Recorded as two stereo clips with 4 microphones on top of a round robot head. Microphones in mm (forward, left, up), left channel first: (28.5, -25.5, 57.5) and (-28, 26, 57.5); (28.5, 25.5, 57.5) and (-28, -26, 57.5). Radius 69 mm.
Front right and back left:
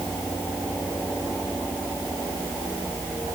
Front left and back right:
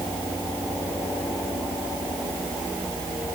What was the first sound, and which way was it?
Only background noise.